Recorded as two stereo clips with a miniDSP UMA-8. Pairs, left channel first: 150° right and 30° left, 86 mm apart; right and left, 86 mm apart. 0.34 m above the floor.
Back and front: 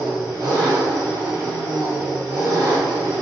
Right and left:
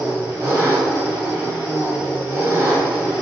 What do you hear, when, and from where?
0.0 s an engine running: 30° left, 1.2 m